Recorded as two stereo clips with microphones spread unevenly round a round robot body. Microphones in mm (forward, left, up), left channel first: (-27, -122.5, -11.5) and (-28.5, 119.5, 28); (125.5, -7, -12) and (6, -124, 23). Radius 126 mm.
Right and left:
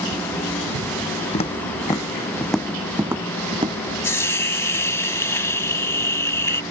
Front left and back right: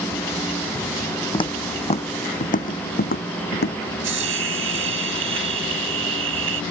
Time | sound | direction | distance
1.3 | footsteps | 20° right | ?
4.0 | a hiss | 170° right | ?